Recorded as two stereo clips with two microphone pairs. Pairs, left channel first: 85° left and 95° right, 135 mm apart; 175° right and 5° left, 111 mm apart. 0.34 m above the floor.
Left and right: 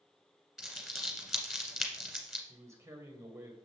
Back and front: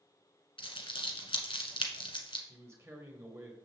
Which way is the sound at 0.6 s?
175° left.